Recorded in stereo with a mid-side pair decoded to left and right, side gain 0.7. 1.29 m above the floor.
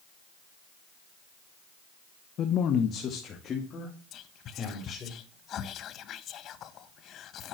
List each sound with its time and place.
2.4 s a man speaking: 45° left, 1.1 m; by 5.1 s 30° left, 5 m
4.1 s whispering: 45° left, 1.3 m